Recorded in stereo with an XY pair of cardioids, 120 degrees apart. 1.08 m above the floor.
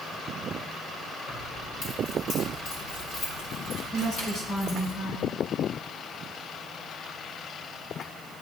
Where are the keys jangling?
60° left, 2 m; by 4.9 s 75° left, 6.5 m.